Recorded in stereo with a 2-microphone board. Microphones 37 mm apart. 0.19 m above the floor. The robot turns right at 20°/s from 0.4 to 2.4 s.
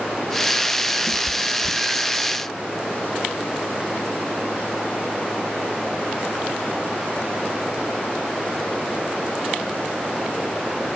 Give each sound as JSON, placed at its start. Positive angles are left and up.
{"t": 1.1, "sound": "a cat meowing", "side_deg": 0, "distance_m": 1.4}